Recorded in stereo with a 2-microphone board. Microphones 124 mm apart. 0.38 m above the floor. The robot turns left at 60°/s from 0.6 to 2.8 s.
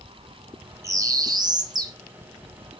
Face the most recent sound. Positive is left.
turn(degrees=-165)